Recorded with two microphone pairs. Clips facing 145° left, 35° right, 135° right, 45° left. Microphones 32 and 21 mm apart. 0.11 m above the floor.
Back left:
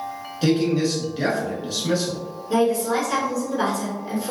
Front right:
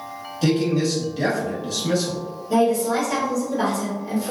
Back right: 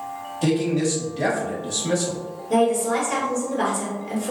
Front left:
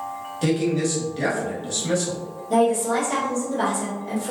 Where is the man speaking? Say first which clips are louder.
Even, back right 1 dB; 105° left, 1.1 m.